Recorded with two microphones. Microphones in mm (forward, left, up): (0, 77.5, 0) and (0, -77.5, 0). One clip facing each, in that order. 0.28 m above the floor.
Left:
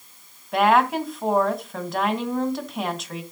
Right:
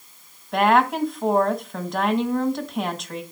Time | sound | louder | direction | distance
0.5 | a woman speaking | even | centre (ahead or behind) | 1.7 m